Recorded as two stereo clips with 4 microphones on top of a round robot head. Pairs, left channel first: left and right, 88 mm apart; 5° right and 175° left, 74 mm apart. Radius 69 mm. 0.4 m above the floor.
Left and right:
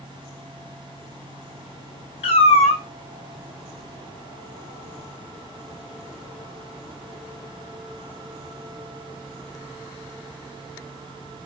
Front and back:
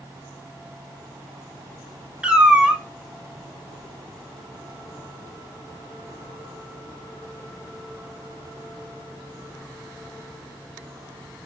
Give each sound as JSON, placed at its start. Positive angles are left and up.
{"t": 2.2, "sound": "a cat meowing", "azimuth_deg": 100, "distance_m": 0.6}